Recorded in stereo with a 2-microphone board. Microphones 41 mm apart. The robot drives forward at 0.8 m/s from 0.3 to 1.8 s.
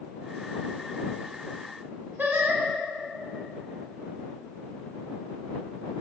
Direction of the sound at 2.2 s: 50° right (ahead or behind).